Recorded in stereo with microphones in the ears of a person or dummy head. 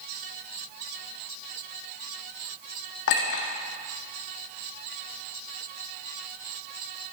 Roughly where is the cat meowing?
No cat meowing in this recording.